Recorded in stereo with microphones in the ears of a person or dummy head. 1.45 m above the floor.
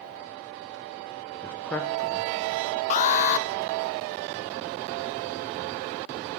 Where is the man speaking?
10° left (ahead or behind), 0.9 m.